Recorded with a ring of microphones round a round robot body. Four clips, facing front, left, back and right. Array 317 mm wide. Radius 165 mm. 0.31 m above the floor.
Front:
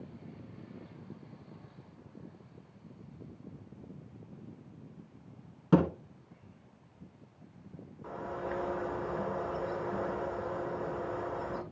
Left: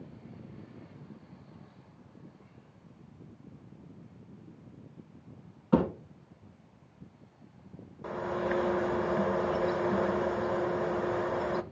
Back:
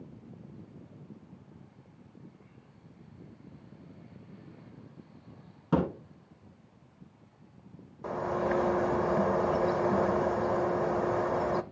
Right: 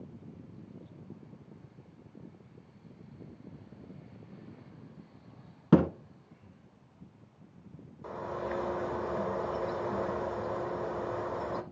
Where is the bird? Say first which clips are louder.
Left 4 dB, back 8 dB; 165° left, 0.6 m.